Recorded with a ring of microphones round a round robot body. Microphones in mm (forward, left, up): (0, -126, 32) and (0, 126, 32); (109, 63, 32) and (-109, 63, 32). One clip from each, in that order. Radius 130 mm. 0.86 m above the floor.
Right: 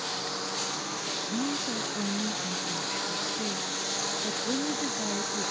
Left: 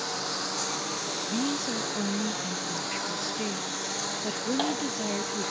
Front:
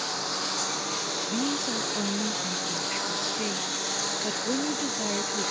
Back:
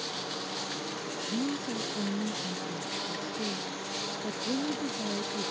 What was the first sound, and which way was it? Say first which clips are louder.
A lawn mower: left 1 dB, front 6 dB; 5° left.